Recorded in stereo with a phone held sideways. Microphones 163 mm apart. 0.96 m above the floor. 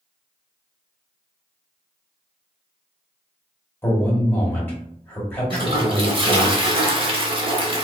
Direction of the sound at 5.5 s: 35° right (ahead or behind).